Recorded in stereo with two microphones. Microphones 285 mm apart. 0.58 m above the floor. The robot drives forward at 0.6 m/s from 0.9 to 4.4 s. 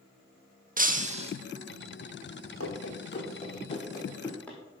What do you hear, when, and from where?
0.8 s breaking glass: 30° right (ahead or behind), 0.6 m; by 1.3 s 20° right (ahead or behind), 0.8 m
2.6 s running footsteps: 60° left (ahead or behind), 1.1 m; by 4.6 s 5° left (ahead or behind), 2 m